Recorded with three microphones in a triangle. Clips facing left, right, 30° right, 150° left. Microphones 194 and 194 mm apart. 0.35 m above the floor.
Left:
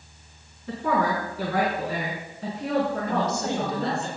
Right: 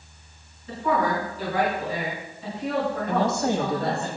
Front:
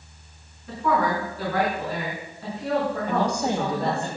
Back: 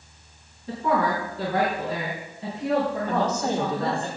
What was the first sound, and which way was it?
A woman speaking, 95° left.